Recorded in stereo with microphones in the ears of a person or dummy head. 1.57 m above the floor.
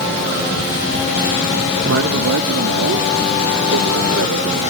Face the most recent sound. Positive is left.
turn(degrees=-85)